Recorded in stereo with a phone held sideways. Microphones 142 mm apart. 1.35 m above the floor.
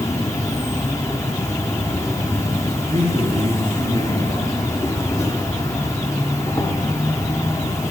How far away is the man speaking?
About 5 m.